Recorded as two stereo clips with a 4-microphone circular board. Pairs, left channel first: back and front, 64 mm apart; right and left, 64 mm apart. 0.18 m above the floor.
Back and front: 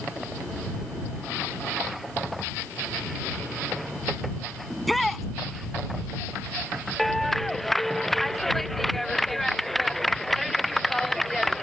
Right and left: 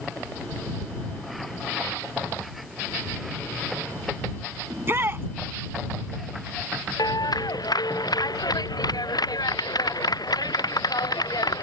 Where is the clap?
90° right.